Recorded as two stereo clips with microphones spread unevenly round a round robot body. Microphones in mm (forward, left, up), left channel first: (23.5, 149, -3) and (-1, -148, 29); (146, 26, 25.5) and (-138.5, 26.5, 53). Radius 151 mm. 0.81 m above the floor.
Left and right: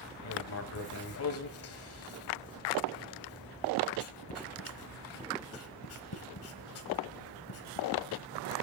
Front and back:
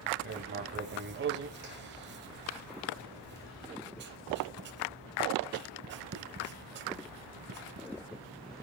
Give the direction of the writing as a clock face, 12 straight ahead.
8 o'clock.